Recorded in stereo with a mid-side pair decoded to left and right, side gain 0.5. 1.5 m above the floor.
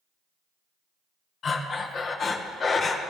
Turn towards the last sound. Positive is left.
turn(degrees=45)